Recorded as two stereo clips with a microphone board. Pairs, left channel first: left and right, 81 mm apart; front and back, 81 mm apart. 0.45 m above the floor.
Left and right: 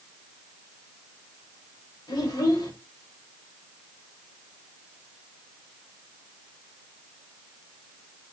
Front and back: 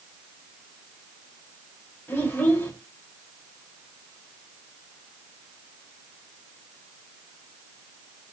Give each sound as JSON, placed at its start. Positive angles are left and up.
{"t": 2.1, "sound": "a child speaking", "azimuth_deg": 65, "distance_m": 1.2}